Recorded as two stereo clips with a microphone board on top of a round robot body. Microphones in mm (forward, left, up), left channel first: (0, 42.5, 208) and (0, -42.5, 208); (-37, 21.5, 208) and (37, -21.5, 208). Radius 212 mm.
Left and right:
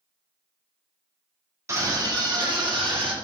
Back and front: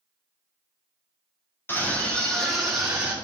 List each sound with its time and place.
1.7 s a scream: 145° right, 2.5 m; by 3.1 s 105° right, 3 m